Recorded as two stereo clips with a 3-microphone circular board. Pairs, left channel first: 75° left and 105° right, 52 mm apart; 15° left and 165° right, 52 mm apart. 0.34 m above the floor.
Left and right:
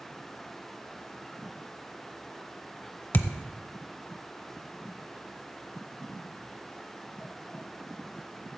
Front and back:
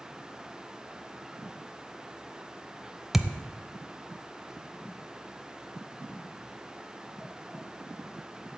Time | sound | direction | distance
3.1 | a thud | 110° left | 0.7 m